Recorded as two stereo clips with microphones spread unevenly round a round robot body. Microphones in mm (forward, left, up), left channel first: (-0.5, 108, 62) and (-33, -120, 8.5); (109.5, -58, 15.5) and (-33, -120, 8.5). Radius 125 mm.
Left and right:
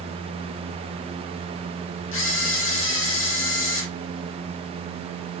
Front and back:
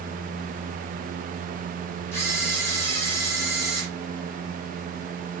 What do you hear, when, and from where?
2.1 s a camera shutter: 100° left, 0.8 m